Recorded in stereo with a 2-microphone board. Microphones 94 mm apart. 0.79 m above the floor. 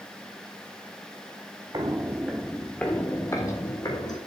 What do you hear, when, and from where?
1.7 s footsteps: 40° right (ahead or behind), 1.0 m; by 4.2 s 45° left (ahead or behind), 2 m